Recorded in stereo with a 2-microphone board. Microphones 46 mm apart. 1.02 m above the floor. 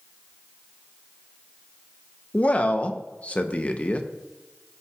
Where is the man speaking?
35° left (ahead or behind), 0.8 m.